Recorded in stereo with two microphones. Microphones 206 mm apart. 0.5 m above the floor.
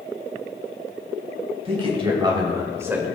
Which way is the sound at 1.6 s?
30° right (ahead or behind).